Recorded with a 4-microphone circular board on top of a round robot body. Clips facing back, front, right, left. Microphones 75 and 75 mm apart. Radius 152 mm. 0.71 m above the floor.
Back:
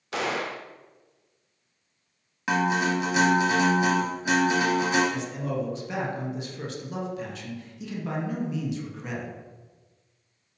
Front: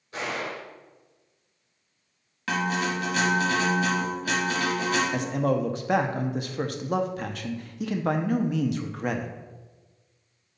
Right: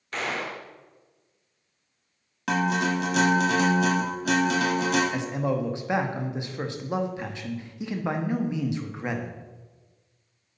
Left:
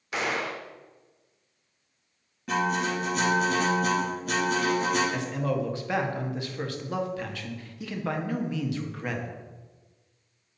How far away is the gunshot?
About 0.7 m.